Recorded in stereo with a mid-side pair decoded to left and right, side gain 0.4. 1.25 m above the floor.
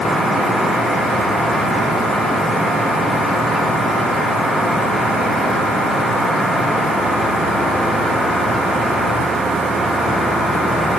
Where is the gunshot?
I don't hear a gunshot.